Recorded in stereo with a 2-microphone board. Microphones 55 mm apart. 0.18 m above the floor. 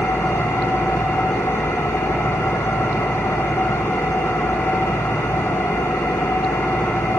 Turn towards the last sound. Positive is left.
turn(degrees=60)  # may be behind; listen again after turning